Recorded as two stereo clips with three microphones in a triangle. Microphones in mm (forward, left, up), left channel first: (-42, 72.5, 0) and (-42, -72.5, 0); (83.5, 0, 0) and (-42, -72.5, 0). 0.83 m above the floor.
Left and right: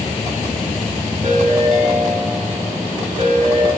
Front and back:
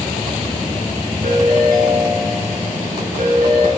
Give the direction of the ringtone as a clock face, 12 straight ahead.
4 o'clock.